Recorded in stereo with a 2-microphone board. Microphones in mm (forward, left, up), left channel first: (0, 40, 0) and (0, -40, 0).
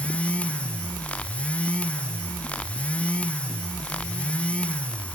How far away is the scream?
I don't hear a scream.